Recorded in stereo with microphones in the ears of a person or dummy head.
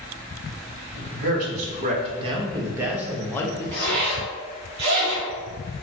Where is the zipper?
65° right (ahead or behind), 1.4 m.